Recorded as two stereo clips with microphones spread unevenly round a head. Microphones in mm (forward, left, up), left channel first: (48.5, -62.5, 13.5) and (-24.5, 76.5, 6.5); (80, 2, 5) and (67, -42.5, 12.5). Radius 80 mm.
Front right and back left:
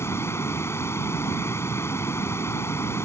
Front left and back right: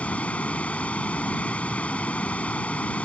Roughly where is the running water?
Ahead.